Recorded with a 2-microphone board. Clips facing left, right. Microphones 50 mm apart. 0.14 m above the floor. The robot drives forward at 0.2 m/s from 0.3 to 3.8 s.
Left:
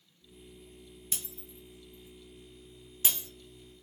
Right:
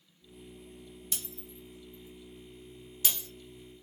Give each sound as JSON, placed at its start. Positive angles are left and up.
{"t": 1.1, "sound": "breaking glass", "side_deg": 20, "distance_m": 1.4}